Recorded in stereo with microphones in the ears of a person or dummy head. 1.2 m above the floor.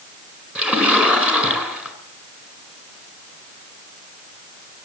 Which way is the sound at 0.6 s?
5° right (ahead or behind).